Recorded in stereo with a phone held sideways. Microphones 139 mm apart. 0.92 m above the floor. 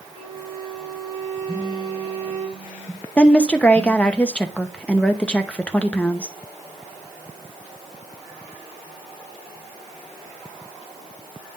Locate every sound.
0.1 s a violin: 40° right (ahead or behind), 5 m
1.5 s a phone buzzing: 10° right (ahead or behind), 1.1 m
3.2 s a woman speaking: 10° left (ahead or behind), 0.7 m